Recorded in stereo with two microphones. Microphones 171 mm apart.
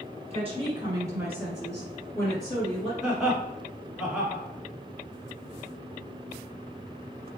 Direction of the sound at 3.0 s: Centre (ahead or behind).